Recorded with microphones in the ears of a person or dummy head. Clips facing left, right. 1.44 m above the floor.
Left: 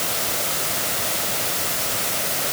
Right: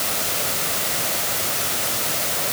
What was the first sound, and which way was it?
Only background noise.